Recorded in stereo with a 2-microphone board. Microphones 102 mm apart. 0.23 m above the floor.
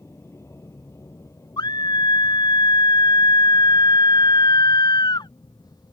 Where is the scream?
45° left (ahead or behind).